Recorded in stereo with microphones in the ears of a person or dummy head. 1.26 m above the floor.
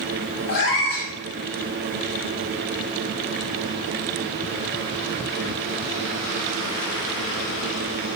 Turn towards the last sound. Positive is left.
turn(degrees=50)  # may be behind; listen again after turning